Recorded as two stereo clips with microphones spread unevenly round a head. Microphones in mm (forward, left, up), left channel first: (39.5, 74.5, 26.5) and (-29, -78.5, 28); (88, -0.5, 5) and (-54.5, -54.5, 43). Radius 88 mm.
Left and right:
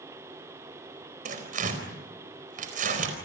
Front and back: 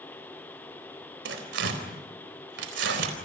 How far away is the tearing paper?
About 4.5 m.